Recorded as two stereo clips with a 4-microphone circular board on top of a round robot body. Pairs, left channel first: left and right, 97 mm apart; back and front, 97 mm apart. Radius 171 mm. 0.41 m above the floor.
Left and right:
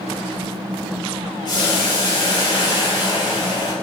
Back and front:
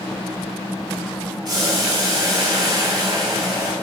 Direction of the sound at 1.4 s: 45° left.